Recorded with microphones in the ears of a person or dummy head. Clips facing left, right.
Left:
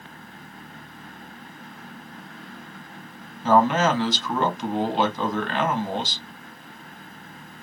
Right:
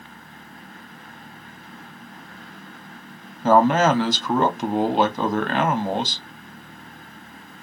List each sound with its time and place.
3.4 s a man speaking: 45° right (ahead or behind), 0.7 m